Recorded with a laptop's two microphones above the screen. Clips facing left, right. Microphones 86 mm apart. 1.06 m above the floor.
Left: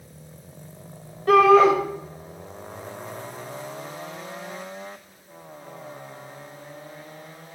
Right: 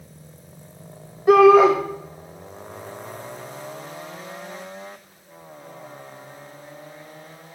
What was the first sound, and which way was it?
A shout, 15° right (ahead or behind).